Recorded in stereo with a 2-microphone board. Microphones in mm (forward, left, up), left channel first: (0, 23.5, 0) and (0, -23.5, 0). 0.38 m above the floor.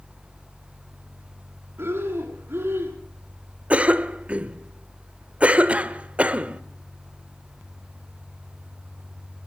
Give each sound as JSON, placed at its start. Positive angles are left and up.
{"t": 1.8, "sound": "breathing", "side_deg": -50, "distance_m": 3.5}
{"t": 3.7, "sound": "a cough", "side_deg": -25, "distance_m": 1.0}